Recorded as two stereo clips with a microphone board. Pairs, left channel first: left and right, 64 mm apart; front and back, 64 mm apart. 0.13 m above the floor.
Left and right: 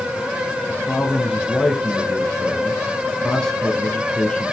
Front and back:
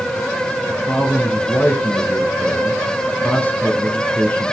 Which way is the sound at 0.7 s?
20° left.